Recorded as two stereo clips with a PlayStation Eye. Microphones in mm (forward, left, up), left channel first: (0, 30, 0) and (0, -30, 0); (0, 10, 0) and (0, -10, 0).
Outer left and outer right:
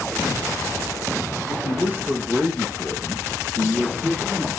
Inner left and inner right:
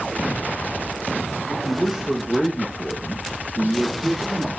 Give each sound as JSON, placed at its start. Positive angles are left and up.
{"t": 1.5, "sound": "a man speaking", "side_deg": -10, "distance_m": 6.0}